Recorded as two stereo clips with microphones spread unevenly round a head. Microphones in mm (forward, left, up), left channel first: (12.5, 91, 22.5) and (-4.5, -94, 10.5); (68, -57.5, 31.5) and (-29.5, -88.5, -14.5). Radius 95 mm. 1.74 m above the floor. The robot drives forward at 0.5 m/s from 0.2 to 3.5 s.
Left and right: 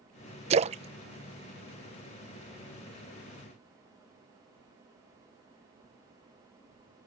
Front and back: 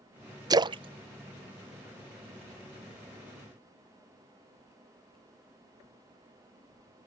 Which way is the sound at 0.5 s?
95° right.